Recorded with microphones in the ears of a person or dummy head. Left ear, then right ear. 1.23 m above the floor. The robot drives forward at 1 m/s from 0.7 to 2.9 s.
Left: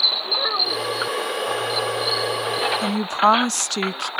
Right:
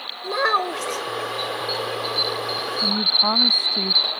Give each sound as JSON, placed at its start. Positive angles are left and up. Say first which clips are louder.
{"t": 0.2, "sound": "a child speaking", "louder": "even", "side_deg": -80}
{"t": 2.8, "sound": "a woman speaking", "louder": "right 3 dB", "side_deg": 70}